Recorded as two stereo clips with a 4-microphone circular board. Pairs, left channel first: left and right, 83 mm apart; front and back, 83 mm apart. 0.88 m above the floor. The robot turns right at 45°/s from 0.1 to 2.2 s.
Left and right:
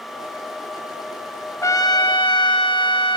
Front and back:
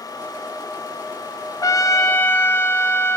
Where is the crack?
No crack in this recording.